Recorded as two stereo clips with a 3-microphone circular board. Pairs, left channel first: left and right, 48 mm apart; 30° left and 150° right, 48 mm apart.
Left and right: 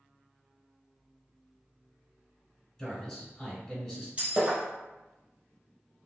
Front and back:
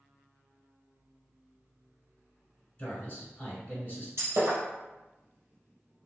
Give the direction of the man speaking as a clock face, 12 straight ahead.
11 o'clock.